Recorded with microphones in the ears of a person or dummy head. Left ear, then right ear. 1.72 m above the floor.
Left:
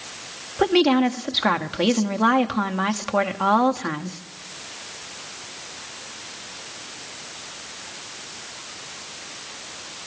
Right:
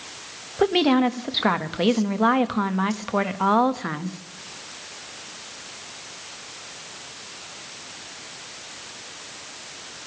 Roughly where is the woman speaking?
Centre.